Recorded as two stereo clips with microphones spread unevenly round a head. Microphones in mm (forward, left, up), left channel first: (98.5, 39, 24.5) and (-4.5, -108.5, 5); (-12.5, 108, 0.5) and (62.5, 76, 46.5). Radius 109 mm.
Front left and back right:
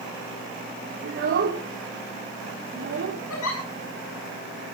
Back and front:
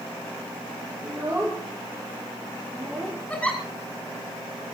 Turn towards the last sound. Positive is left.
turn(degrees=80)